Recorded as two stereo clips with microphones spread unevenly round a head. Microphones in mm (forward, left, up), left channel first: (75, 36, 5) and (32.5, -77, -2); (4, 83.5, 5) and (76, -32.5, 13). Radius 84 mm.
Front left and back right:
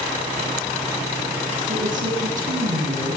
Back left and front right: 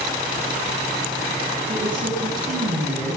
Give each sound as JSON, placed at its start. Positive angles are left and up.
{"t": 1.7, "sound": "a woman speaking", "azimuth_deg": -105, "distance_m": 8.5}